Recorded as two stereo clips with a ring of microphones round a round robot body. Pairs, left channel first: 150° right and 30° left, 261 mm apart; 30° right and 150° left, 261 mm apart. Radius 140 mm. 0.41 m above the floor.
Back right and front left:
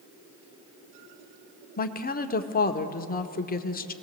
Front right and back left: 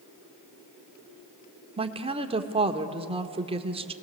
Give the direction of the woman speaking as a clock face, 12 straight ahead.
5 o'clock.